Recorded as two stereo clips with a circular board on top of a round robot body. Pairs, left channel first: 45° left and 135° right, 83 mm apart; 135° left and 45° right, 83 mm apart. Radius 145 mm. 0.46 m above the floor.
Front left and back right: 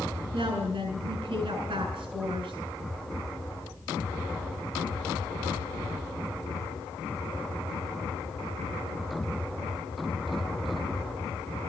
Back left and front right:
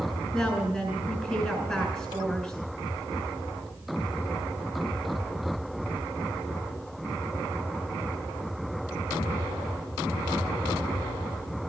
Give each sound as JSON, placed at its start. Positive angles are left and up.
{"t": 0.3, "sound": "a woman speaking", "azimuth_deg": -155, "distance_m": 3.5}